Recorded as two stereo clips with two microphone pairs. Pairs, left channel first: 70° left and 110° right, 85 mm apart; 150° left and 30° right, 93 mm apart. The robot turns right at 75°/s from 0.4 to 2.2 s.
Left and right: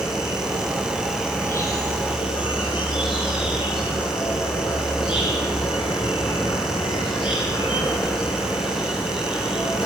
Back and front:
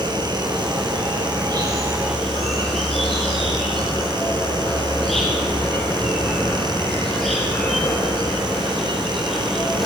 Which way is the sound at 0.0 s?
75° right.